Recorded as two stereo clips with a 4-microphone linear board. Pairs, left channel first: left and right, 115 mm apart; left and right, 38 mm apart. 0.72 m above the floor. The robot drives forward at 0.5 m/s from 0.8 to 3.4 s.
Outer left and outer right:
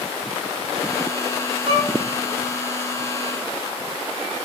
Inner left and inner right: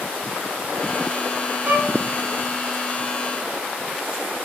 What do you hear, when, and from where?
1.6 s a violin: 60° right (ahead or behind), 5 m